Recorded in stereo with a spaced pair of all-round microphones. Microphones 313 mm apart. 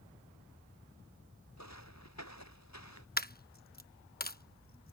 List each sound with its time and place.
1.6 s footsteps: 60° left (ahead or behind)
3.2 s a dropped coin: 30° left (ahead or behind)